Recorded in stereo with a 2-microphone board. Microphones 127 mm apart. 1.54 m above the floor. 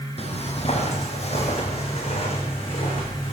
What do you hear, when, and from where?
0.2 s footsteps: 55° left (ahead or behind), 2.5 m; by 3.3 s 50° left (ahead or behind), 4.5 m